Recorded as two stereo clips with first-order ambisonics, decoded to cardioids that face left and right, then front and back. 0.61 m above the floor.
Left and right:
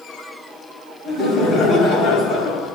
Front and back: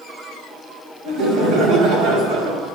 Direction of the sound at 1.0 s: 150° left.